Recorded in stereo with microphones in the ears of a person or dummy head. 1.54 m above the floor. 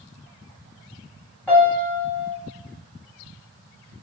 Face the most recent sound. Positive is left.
turn(degrees=10)  # may be behind; listen again after turning